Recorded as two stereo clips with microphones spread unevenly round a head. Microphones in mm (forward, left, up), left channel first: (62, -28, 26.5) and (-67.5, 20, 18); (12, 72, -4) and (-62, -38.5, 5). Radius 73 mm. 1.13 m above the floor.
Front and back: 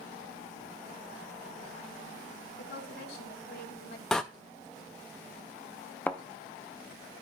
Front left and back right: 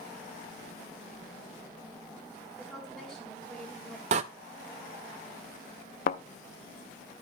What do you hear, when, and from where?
2.6 s a woman speaking: 35° right, 2.5 m
4.1 s a door slam: 105° right, 0.5 m
6.1 s a thud: 55° left, 0.6 m